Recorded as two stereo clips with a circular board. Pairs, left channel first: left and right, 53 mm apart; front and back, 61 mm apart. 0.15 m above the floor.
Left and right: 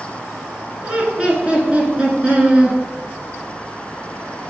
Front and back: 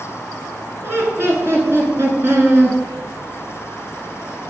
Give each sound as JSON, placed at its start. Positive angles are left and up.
{"t": 0.8, "sound": "laughter", "azimuth_deg": -150, "distance_m": 1.6}